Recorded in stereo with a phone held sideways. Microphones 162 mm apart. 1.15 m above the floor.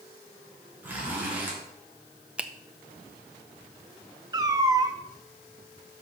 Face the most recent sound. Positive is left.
turn(degrees=-20)  # may be behind; listen again after turning